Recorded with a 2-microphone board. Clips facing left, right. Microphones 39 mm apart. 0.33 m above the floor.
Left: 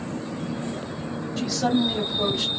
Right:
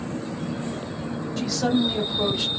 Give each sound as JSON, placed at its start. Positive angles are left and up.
{"t": 1.4, "sound": "a woman speaking", "side_deg": 5, "distance_m": 1.5}